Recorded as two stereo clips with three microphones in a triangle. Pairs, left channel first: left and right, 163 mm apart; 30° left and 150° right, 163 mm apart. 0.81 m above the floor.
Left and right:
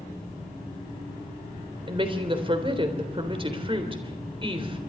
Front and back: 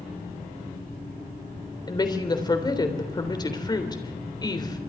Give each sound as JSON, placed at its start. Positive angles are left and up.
{"t": 1.9, "sound": "a woman speaking", "azimuth_deg": -35, "distance_m": 3.5}